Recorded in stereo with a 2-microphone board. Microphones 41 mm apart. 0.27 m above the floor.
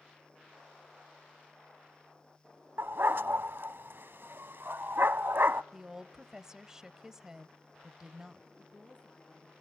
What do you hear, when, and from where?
2.8 s a dog barking: 65° right (ahead or behind), 0.5 m
5.7 s a woman speaking: 15° right (ahead or behind), 0.9 m
8.6 s a woman speaking: 30° left (ahead or behind), 3 m